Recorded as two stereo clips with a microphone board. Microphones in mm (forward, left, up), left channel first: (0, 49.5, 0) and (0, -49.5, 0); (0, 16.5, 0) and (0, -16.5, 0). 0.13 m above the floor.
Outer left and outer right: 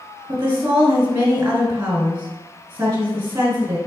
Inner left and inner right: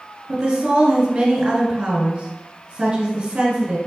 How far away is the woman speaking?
About 1.1 m.